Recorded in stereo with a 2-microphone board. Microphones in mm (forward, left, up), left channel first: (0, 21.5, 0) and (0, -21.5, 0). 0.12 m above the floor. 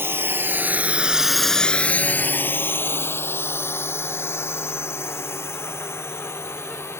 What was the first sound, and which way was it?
A drone, 65° right (ahead or behind).